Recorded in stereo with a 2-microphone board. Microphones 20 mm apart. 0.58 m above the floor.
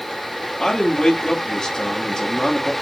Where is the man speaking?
30° left (ahead or behind), 1.4 m.